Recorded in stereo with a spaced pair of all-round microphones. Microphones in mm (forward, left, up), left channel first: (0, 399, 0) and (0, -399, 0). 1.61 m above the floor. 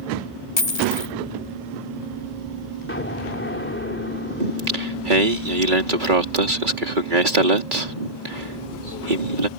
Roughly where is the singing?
Right.